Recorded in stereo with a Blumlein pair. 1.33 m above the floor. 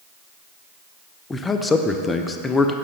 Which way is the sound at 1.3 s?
15° left.